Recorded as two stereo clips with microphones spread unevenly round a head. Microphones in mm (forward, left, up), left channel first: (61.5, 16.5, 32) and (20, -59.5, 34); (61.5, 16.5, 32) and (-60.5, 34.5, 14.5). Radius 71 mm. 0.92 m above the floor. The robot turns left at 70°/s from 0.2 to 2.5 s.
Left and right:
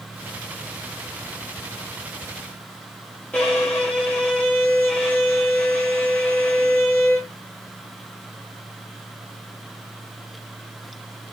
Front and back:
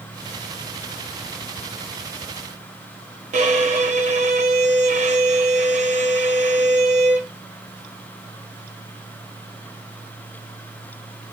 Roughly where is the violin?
Behind left.